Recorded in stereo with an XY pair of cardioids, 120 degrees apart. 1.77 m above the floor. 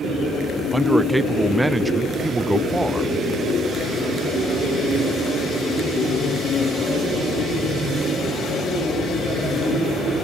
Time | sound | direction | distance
0.7 | a man speaking | 15° right | 0.7 m